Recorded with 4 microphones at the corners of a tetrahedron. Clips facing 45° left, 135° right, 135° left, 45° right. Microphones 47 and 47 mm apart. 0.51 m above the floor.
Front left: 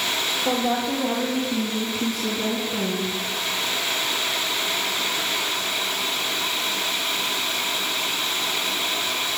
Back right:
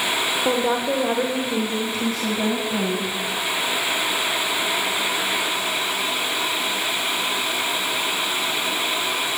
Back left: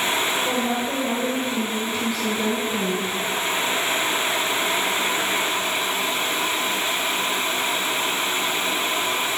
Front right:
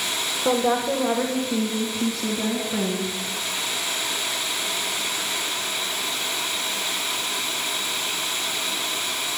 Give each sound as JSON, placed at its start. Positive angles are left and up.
{"t": 0.5, "sound": "a woman speaking", "azimuth_deg": -85, "distance_m": 1.3}